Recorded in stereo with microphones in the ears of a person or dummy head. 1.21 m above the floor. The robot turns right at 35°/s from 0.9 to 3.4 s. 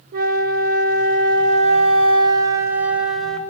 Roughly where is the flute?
Right.